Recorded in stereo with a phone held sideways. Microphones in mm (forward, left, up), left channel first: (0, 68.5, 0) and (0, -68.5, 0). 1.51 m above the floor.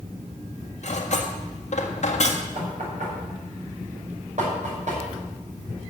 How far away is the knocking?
About 5.5 m.